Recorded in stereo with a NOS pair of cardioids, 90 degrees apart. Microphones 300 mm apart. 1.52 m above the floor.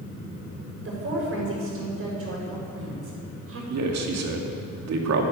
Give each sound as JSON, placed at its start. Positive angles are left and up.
{"t": 0.8, "sound": "a woman speaking", "azimuth_deg": -45, "distance_m": 6.0}
{"t": 3.7, "sound": "a man speaking", "azimuth_deg": -60, "distance_m": 2.5}